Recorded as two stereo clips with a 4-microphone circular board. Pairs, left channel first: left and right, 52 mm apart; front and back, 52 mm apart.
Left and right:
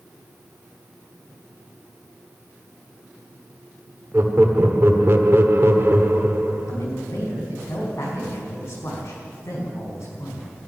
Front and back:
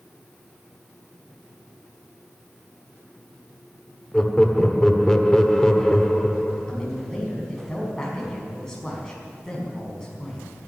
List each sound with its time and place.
4.1 s laughter: 75° right, 1.5 m
6.7 s a man speaking: 80° left, 4.5 m